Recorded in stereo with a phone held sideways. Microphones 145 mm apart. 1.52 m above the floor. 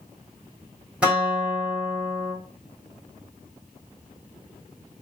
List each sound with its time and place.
1.0 s a guitar: 10° right (ahead or behind), 1.6 m